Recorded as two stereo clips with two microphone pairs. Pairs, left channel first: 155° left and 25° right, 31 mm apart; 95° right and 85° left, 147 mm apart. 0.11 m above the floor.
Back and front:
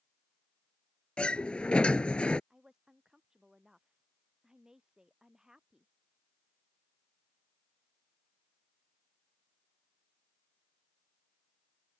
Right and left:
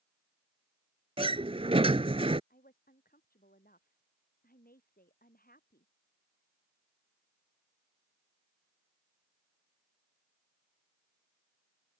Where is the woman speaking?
95° right.